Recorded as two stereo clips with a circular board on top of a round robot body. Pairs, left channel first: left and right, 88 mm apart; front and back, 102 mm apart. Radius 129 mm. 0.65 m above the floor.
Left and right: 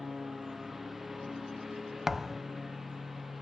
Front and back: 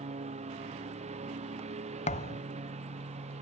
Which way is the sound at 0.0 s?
Straight behind.